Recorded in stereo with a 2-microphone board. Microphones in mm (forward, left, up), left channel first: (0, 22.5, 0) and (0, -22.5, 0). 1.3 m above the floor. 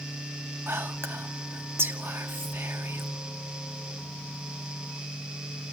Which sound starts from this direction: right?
Whispering, at 0.7 s.